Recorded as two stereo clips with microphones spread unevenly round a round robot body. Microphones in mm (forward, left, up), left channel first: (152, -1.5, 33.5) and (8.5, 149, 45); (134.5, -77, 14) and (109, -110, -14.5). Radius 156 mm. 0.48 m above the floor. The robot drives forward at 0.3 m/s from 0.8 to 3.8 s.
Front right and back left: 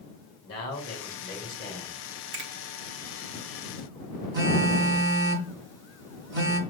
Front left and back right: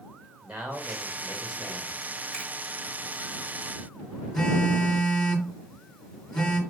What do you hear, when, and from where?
0.4 s a man speaking: 110° right, 2.5 m; by 2.0 s 120° right, 2.5 m
2.3 s a finger snap: 150° left, 1.4 m
4.3 s a phone buzzing: 110° left, 1.6 m